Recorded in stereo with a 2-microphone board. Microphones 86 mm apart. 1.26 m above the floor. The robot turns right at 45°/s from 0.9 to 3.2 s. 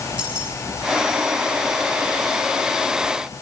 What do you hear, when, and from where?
0.2 s keys jangling: 15° right (ahead or behind), 9 m